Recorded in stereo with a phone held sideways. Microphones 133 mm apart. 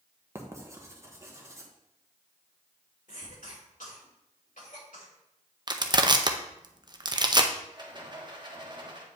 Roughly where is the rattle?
Right.